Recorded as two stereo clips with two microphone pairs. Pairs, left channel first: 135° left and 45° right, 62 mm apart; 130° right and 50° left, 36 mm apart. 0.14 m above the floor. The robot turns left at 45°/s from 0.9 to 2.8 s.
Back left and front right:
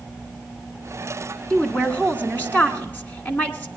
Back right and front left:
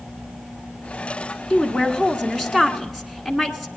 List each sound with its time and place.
1.5 s a woman speaking: 165° right, 1.3 m; by 3.7 s 135° left, 1.3 m